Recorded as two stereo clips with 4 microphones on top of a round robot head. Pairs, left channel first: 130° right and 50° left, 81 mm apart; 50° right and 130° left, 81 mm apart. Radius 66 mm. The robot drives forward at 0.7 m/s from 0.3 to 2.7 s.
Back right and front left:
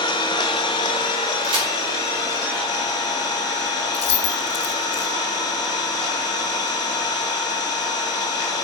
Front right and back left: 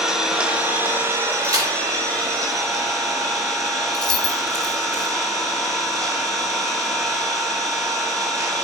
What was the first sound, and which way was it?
An engine running, 150° right.